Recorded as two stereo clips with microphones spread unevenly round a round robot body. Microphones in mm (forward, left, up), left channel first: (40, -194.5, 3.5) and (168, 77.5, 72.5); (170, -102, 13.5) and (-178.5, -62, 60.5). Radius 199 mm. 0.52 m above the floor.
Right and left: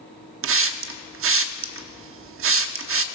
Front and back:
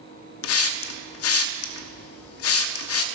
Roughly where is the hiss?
Ahead.